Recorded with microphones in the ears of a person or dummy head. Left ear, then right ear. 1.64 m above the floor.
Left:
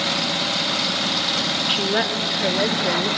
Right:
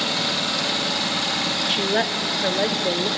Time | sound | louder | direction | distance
1.7 | a woman speaking | left 1 dB | centre (ahead or behind) | 1.1 m